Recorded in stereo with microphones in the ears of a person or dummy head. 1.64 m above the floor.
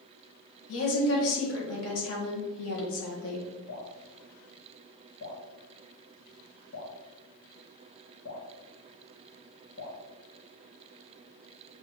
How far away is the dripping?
About 1.2 m.